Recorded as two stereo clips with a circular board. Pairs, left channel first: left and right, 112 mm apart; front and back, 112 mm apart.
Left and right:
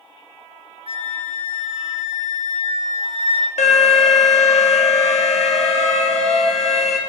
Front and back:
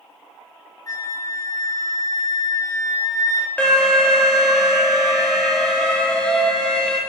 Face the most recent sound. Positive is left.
turn(degrees=80)